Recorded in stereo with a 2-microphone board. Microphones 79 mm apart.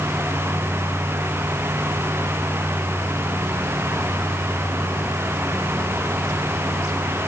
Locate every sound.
Only background noise.